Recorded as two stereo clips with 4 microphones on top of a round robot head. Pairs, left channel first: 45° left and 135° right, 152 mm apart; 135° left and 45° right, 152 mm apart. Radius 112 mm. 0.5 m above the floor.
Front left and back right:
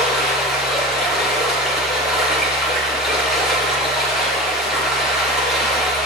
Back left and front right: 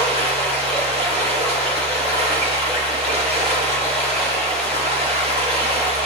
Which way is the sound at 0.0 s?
135° left.